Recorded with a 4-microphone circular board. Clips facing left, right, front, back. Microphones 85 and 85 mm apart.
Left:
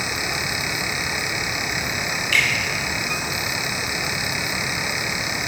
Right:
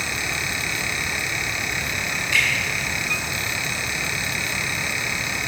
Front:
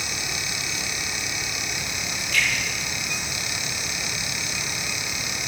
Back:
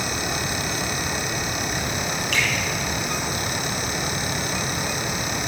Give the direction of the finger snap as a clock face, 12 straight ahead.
5 o'clock.